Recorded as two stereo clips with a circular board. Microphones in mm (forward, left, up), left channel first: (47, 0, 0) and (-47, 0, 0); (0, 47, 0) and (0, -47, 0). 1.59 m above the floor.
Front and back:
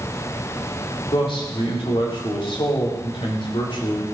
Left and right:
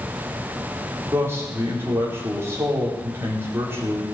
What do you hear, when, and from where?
1.1 s a man speaking: 30° right, 4 m